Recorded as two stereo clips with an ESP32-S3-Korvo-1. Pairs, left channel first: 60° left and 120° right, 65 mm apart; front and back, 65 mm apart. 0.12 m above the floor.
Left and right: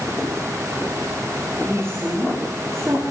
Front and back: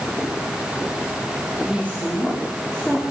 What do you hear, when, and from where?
1.7 s a woman speaking: 65° right, 8.5 m; by 3.0 s 75° right, 7 m